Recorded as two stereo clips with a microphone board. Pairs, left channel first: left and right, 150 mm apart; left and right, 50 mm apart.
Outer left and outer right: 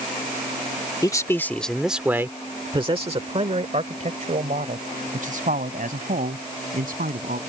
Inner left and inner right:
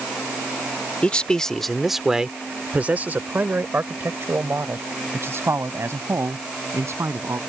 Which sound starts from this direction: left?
A man speaking, at 1.0 s.